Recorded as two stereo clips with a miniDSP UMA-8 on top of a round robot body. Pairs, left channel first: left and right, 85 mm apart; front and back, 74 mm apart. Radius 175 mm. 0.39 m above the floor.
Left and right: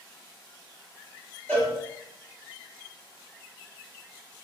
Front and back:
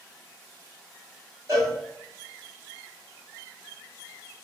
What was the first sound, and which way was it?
A cowbell, 155° left.